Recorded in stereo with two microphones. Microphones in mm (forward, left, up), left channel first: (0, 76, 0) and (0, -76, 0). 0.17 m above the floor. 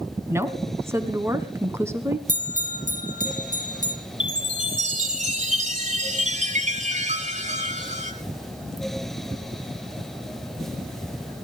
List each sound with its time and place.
0.3 s a woman speaking: 15° right (ahead or behind), 1.3 m
2.3 s a bell: 60° right (ahead or behind), 3 m
4.2 s a chime: 55° right (ahead or behind), 1.8 m